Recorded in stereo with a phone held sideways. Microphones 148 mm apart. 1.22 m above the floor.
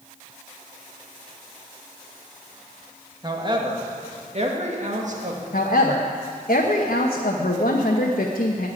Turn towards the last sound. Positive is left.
turn(degrees=90)